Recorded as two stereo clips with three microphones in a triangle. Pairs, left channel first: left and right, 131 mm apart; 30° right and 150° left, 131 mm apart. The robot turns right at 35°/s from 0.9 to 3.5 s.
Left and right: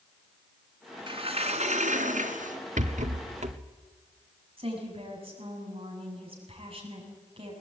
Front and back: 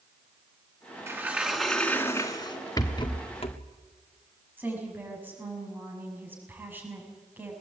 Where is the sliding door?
140° right, 2 m; by 2.6 s 85° right, 2 m.